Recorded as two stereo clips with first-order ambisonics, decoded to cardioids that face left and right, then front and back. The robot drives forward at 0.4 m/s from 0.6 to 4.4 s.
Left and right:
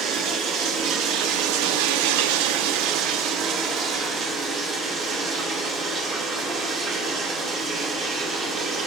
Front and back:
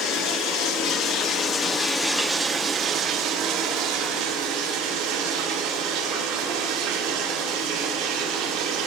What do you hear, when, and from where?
0.0 s running water: 40° right, 0.8 m; by 8.9 s 150° right, 1.1 m